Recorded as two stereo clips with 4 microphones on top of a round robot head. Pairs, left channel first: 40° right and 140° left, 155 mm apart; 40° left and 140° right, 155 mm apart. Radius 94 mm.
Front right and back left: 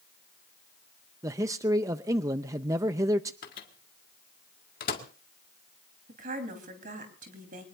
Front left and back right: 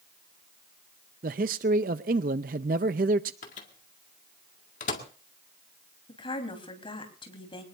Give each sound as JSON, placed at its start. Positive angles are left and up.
{"t": 1.2, "sound": "a man speaking", "azimuth_deg": -155, "distance_m": 0.5}
{"t": 3.4, "sound": "a microwave", "azimuth_deg": -5, "distance_m": 1.9}
{"t": 6.1, "sound": "a woman speaking", "azimuth_deg": 100, "distance_m": 4.0}